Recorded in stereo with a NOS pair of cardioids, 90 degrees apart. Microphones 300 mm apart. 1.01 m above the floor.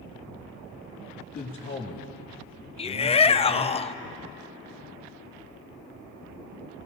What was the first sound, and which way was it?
A man speaking, 35° left.